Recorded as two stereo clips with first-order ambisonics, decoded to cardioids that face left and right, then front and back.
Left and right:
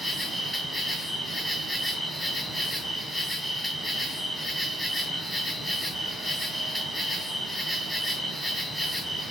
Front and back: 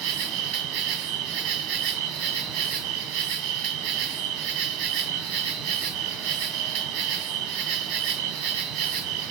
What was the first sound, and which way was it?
An insect, 175° right.